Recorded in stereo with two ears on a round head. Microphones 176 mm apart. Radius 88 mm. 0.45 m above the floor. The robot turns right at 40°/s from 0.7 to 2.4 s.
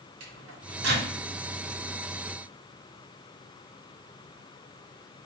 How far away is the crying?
I don't hear crying.